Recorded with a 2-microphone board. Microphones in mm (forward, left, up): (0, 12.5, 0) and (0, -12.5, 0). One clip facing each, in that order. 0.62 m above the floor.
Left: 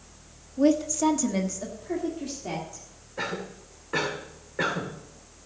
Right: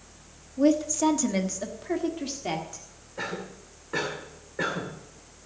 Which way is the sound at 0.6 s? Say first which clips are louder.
Even; 5° left (ahead or behind).